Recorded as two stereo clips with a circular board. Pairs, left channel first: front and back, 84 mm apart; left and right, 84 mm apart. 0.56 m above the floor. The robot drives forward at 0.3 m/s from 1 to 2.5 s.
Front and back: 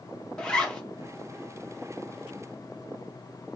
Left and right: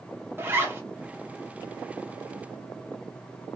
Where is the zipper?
70° right, 0.8 m.